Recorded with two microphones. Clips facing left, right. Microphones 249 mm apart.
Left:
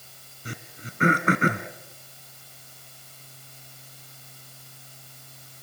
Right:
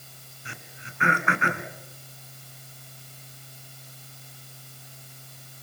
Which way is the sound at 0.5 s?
40° left (ahead or behind).